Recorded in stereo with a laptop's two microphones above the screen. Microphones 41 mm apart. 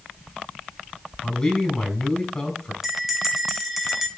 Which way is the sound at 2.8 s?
5° right (ahead or behind).